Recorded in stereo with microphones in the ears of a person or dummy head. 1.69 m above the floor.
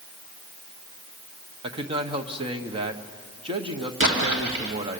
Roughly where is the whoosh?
No whoosh in this recording.